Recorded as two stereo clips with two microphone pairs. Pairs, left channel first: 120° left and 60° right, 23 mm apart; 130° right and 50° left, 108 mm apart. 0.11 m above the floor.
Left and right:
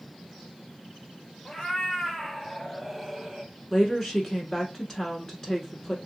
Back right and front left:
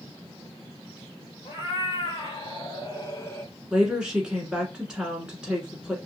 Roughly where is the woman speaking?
Left.